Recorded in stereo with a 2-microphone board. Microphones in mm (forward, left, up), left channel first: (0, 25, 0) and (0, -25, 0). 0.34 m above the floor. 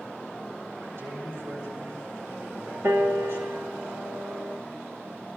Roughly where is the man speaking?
Right.